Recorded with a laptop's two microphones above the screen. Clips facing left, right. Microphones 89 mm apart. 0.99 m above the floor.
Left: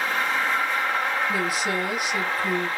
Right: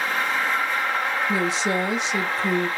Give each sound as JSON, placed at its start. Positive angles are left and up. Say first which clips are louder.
{"t": 1.3, "sound": "a woman speaking", "louder": "right 2 dB", "side_deg": -25, "distance_m": 0.7}